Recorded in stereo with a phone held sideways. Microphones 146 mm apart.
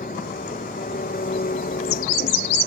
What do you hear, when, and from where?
0.0 s an engine running: 85° left